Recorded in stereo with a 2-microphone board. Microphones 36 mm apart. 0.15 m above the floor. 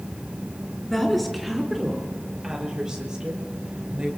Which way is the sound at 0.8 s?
5° left (ahead or behind).